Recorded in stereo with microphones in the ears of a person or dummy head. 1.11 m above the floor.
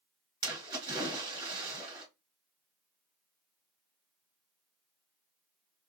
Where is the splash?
25° right (ahead or behind), 1.9 m.